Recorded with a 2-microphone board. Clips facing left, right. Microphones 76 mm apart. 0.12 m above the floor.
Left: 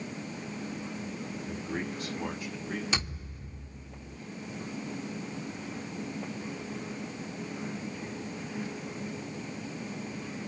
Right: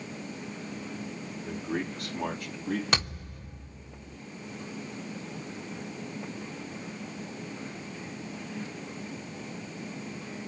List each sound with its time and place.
1.4 s a man speaking: 60° right (ahead or behind), 6.5 m
2.9 s a thud: 60° right (ahead or behind), 6.5 m